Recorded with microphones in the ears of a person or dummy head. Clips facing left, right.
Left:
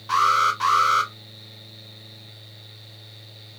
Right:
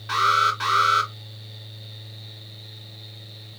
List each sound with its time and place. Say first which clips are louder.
0.1 s an alarm: left 1 dB; 20° right (ahead or behind), 3 m